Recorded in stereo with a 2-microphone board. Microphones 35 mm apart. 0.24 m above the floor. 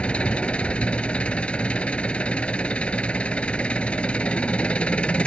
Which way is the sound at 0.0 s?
35° left (ahead or behind).